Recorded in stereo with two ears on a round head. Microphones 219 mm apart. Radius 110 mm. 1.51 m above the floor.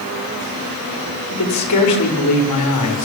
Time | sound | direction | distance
1.3 | a man speaking | 90° left | 7 m